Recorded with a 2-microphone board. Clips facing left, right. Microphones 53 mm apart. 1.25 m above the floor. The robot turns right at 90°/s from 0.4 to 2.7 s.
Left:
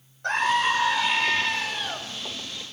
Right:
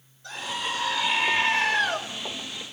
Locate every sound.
0.2 s a scream: 115° left, 5 m; by 2.0 s 100° right, 5 m